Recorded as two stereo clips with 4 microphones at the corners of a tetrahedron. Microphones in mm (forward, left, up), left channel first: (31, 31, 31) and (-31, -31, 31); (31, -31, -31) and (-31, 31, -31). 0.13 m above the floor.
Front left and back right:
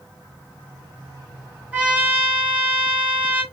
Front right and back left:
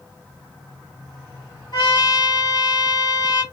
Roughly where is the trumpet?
Ahead right.